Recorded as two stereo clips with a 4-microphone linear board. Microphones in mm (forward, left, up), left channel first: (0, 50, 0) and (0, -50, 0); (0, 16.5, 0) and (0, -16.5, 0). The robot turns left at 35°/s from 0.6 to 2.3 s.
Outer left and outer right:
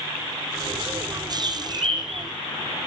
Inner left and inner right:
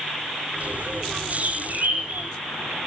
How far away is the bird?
About 3.5 m.